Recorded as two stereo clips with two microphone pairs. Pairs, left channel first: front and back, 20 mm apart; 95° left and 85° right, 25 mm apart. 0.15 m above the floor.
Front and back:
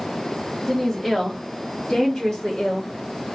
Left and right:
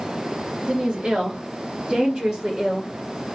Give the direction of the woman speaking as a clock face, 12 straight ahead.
3 o'clock.